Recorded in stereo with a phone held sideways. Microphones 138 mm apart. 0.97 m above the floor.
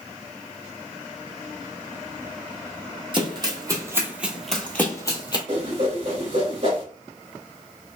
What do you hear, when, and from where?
3.1 s running footsteps: 40° right (ahead or behind), 1.4 m; by 5.4 s 30° left (ahead or behind), 1.1 m
5.5 s a whoosh: 55° right (ahead or behind), 2 m